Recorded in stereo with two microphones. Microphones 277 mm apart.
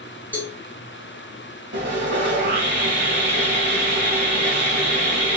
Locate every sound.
0.3 s a cowbell: 5° left (ahead or behind), 2.5 m
1.7 s sawing: 45° right (ahead or behind), 2 m